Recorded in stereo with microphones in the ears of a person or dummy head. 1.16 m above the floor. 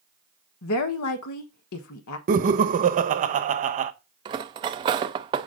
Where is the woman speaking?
75° left (ahead or behind), 1.2 m.